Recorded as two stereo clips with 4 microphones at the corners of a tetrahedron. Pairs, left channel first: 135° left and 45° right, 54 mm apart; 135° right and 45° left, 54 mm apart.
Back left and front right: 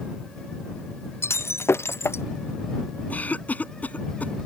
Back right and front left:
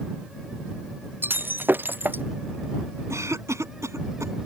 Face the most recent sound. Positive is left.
turn(degrees=75)